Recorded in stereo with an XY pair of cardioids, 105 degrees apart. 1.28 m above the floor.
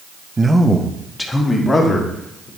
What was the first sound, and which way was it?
A man speaking, 20° right.